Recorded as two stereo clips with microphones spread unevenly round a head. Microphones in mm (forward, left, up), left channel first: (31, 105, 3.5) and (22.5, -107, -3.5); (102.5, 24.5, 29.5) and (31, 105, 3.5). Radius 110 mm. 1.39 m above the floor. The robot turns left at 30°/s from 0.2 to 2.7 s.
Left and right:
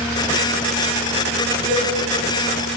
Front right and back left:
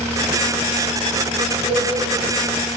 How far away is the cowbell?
About 8 m.